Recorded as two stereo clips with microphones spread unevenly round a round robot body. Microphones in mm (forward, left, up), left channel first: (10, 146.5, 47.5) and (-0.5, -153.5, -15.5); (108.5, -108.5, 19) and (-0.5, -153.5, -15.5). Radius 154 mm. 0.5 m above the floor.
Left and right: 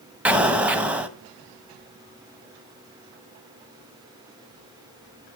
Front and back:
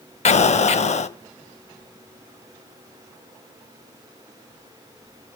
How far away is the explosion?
About 0.9 m.